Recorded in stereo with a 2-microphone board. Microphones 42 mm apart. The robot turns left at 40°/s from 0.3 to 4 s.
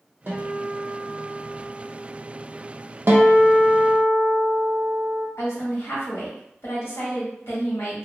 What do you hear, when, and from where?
0.3 s a guitar: 80° right, 0.9 m; by 2.8 s straight behind, 0.9 m
3.1 s a guitar: 120° right, 0.6 m; by 5.3 s 160° right, 0.6 m
5.4 s a woman speaking: 80° left, 1.3 m